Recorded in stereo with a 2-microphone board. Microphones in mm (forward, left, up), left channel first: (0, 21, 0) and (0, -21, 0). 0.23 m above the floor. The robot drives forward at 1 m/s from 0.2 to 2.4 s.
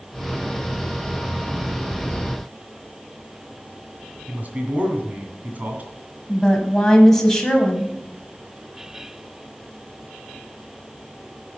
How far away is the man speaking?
About 2 m.